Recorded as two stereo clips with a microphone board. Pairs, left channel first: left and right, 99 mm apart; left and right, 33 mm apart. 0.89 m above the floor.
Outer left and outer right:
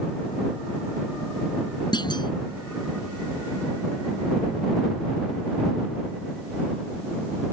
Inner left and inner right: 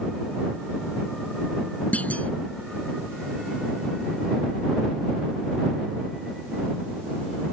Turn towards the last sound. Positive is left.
turn(degrees=50)  # may be behind; listen again after turning